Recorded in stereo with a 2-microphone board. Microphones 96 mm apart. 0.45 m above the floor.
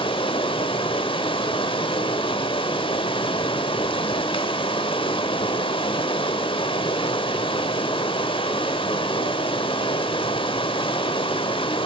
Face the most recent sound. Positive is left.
turn(degrees=65)  # may be behind; listen again after turning